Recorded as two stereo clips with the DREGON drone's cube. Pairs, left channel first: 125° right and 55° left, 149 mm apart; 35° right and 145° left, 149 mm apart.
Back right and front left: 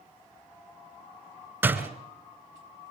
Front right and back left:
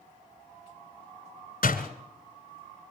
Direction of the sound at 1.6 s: 20° right.